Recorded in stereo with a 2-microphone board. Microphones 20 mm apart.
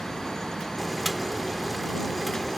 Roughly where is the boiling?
Centre.